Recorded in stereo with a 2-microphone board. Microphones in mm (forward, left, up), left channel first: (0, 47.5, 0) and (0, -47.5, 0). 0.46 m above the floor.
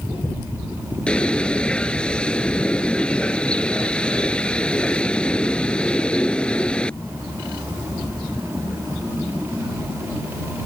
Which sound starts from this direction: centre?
A bird, at 1.1 s.